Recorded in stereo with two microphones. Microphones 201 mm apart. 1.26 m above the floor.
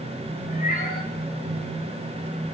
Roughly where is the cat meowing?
Left.